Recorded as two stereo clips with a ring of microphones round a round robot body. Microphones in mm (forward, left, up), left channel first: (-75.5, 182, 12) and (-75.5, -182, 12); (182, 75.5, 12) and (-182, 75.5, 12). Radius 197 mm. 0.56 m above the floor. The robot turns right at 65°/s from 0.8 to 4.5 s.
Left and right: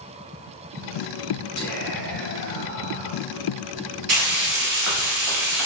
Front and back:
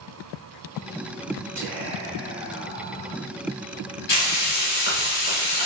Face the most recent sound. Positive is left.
turn(degrees=-40)